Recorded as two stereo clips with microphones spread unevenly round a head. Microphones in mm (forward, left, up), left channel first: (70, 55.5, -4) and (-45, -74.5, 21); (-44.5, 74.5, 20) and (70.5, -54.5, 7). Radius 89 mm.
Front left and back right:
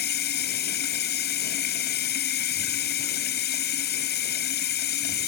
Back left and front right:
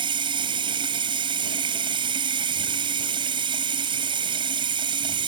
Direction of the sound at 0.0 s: 15° left.